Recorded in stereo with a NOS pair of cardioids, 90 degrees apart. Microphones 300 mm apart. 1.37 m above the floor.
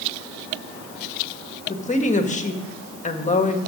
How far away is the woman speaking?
About 1.6 m.